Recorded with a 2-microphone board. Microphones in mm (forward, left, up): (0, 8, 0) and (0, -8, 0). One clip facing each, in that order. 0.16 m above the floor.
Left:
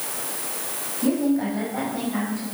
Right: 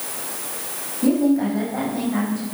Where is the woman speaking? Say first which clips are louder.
Right 4 dB; 10° right (ahead or behind), 7.5 m; by 2.5 s 20° right (ahead or behind), 8.5 m.